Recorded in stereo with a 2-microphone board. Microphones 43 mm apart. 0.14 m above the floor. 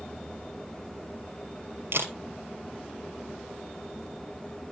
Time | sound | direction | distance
1.9 | a camera shutter | 65° right (ahead or behind) | 2.5 m